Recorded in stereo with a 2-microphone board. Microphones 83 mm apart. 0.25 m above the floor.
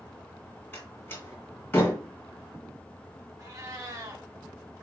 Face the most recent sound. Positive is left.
turn(degrees=-40)  # may be behind; listen again after turning